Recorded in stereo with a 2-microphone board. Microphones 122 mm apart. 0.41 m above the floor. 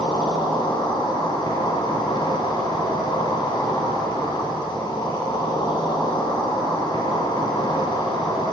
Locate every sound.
0.0 s an insect: 40° left (ahead or behind), 4.5 m